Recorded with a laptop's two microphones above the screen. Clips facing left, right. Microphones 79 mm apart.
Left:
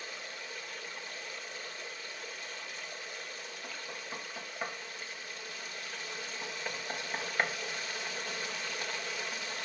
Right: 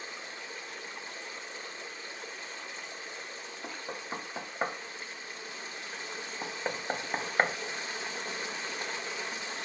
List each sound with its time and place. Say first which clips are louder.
0.0 s running water: right 1 dB; 25° right (ahead or behind), 1.2 m
3.6 s knocking: right 6 dB; 35° right (ahead or behind), 0.5 m